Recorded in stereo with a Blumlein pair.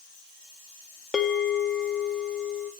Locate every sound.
1.1 s a bell: 15° left, 0.9 m